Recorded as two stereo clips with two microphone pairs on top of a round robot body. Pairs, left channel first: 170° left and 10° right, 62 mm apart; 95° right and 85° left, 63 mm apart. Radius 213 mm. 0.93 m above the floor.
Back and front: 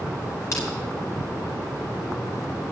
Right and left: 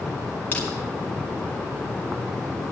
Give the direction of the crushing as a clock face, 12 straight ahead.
5 o'clock.